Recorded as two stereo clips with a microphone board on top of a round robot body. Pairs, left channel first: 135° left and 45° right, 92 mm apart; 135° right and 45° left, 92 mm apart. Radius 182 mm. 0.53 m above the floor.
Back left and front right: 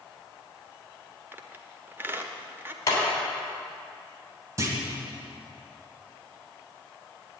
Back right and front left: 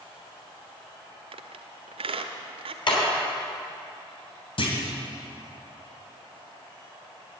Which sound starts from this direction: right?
A clunk, at 4.6 s.